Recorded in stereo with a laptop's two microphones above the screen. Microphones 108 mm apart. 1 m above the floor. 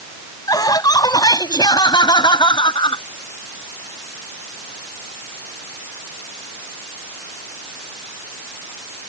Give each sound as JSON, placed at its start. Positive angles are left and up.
{"t": 0.5, "sound": "laughter", "side_deg": 35}